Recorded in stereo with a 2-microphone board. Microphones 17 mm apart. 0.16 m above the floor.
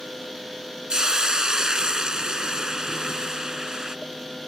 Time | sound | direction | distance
0.9 | a hiss | 50° right (ahead or behind) | ?